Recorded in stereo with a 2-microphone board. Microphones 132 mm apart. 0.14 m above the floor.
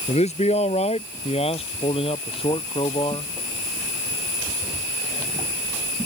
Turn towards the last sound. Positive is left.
turn(degrees=40)  # may be behind; listen again after turning